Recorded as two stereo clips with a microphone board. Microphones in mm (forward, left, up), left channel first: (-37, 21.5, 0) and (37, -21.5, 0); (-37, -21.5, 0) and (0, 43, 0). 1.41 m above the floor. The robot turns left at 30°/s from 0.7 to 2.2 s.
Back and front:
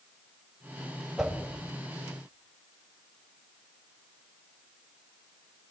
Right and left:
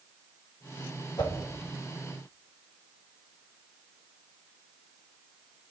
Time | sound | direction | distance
1.2 | a whoosh | 115° right | 2.5 m